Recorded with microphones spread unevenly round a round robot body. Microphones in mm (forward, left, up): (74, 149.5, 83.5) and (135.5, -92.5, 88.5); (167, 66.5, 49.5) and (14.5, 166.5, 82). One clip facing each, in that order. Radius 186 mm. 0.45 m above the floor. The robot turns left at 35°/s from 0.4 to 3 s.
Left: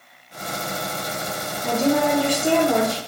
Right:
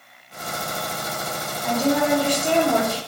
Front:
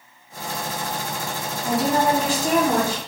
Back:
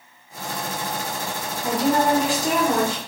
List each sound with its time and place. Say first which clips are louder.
1.6 s a woman speaking: left 1 dB, back 1 dB; 70° left, 1.1 m; by 3.0 s 20° left, 1.1 m